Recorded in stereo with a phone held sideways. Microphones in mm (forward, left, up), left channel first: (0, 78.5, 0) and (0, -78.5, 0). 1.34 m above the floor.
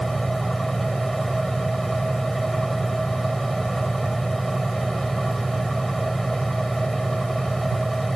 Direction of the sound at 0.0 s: Centre (ahead or behind).